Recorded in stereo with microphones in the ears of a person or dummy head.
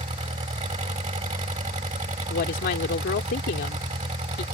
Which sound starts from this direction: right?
An engine running, at 0.0 s.